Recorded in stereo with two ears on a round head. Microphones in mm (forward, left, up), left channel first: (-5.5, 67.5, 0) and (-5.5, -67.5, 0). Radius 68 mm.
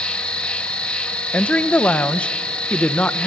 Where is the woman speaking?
10° left (ahead or behind), 0.8 m.